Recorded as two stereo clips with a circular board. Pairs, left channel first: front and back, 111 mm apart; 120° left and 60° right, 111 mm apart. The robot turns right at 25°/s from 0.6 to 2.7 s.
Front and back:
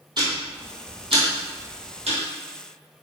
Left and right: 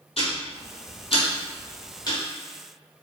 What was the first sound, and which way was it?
Ticking, 135° left.